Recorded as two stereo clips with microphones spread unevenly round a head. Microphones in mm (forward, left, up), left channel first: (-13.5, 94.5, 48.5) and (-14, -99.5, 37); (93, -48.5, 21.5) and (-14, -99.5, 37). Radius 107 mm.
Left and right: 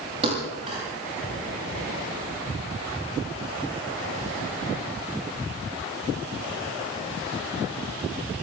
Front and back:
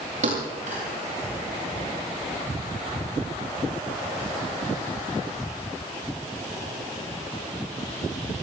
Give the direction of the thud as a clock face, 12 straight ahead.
5 o'clock.